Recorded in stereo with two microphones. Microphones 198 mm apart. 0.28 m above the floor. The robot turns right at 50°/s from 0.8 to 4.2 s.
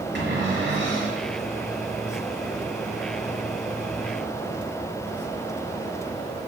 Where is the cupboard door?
60° right (ahead or behind), 4 m; by 1.2 s 40° right (ahead or behind), 4 m.